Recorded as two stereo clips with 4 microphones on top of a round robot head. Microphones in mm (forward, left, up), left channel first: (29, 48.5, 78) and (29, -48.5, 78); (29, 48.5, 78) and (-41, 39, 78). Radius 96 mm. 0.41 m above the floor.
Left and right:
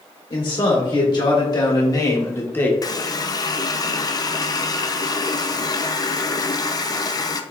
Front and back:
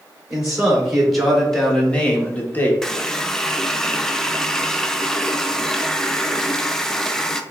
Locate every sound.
0.3 s a man speaking: 105° left, 2 m; by 2.7 s 35° left, 1.2 m
2.8 s a running tap: 90° left, 0.6 m